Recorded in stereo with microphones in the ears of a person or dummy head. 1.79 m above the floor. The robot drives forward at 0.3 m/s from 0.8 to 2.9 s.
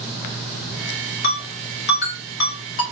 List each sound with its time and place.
1.2 s a ringtone: 60° left (ahead or behind), 1.8 m